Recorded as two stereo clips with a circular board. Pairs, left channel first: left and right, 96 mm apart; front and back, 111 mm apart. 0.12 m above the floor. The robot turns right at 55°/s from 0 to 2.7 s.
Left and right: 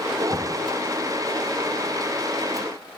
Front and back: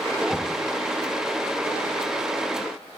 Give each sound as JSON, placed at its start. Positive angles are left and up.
{"t": 0.3, "sound": "knocking", "azimuth_deg": 50, "distance_m": 1.1}